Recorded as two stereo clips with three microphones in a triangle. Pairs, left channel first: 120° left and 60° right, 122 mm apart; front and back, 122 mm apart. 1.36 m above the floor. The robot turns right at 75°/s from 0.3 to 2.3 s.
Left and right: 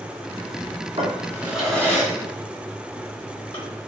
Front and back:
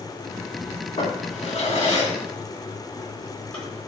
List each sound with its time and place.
1.0 s a drawer: 20° right, 3.5 m; by 3.9 s 80° left, 3.5 m